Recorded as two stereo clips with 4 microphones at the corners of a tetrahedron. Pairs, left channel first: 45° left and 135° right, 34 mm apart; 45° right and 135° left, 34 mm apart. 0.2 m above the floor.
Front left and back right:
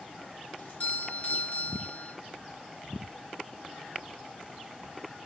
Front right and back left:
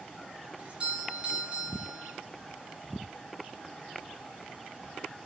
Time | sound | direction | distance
0.6 | a doorbell | 80° left | 4 m